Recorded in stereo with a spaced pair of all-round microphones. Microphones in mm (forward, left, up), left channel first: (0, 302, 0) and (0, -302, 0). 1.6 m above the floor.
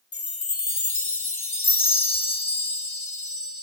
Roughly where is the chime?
Left.